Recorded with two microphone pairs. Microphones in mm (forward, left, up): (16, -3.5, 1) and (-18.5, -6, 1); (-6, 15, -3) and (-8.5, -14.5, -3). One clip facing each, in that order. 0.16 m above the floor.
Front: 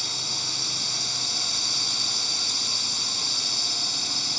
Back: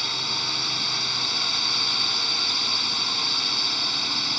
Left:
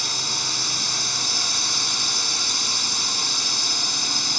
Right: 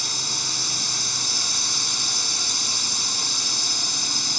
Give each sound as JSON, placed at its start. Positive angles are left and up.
{"t": 0.0, "sound": "a drone", "azimuth_deg": 155}